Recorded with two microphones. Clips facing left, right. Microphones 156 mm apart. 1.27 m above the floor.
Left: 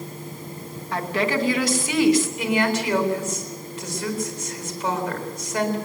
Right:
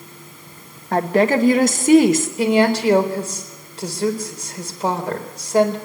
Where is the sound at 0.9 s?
45° right (ahead or behind), 1.9 m.